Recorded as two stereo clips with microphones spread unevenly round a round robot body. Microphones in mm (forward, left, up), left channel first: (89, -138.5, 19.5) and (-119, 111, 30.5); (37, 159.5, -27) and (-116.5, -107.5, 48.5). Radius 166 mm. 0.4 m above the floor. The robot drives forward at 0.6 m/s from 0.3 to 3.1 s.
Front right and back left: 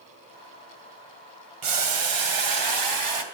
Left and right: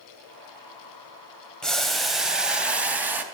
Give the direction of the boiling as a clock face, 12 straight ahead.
7 o'clock.